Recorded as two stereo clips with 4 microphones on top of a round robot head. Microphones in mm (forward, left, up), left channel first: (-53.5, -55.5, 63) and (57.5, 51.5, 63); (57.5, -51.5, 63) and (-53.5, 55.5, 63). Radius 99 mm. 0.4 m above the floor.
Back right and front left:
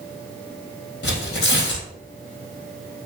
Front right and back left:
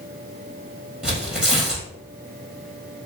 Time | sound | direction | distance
1.0 | tearing paper | 140° right | 3 m